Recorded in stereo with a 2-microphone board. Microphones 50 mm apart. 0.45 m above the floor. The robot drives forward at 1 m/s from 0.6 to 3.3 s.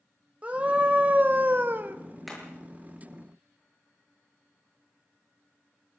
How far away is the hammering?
About 7.5 m.